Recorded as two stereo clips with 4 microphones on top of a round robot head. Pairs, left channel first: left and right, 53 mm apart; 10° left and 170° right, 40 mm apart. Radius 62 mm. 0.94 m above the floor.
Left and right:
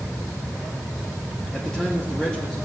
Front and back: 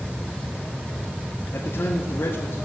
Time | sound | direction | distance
1.5 | a man speaking | 10° left | 2 m